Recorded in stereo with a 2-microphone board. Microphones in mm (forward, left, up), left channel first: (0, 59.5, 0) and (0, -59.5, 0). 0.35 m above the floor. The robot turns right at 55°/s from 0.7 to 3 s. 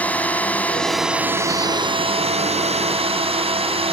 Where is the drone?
165° left; by 3.9 s 65° right.